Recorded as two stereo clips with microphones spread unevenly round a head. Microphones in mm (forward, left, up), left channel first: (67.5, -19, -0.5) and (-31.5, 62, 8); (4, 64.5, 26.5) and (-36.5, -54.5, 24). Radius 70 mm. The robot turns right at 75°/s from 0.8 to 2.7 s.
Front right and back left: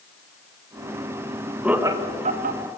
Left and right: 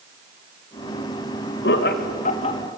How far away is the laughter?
About 1.5 m.